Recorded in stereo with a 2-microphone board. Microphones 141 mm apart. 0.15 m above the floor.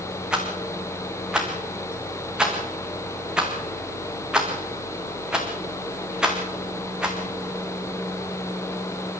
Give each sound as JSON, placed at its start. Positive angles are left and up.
{"t": 0.3, "sound": "a rattle", "side_deg": -5, "distance_m": 4.0}